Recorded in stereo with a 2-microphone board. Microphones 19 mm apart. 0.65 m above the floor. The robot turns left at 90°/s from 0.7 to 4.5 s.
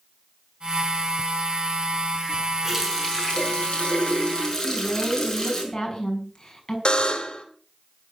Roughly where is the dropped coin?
No dropped coin in this recording.